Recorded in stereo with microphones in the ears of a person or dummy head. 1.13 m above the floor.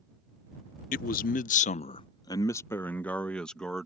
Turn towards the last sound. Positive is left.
turn(degrees=5)  # may be behind; listen again after turning